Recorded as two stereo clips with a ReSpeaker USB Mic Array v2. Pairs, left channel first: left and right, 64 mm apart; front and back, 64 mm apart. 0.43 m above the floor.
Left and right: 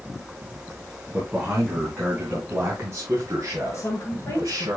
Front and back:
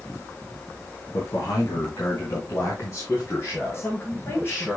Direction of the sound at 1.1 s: 20° right.